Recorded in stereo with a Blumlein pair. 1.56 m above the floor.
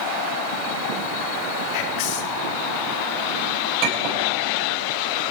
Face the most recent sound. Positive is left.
turn(degrees=-45)